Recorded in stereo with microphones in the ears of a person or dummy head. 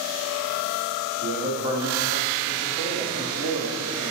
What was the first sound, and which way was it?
A man speaking, 50° right (ahead or behind).